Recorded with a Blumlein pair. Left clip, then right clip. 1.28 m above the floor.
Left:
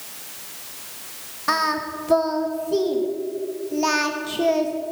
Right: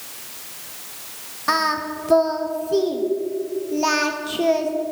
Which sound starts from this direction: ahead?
Singing, at 1.5 s.